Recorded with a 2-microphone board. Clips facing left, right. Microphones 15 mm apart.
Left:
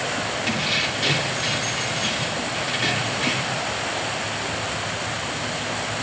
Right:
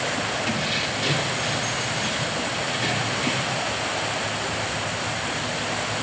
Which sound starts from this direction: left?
Keys jangling, at 0.5 s.